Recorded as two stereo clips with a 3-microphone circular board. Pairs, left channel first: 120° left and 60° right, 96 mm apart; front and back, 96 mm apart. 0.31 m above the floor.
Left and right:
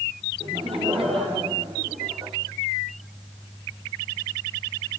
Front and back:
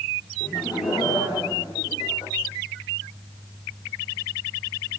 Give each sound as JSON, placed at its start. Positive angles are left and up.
{"t": 0.4, "sound": "laughter", "azimuth_deg": -45, "distance_m": 9.0}